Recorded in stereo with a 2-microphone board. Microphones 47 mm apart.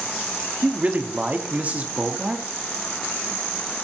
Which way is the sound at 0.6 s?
30° right (ahead or behind).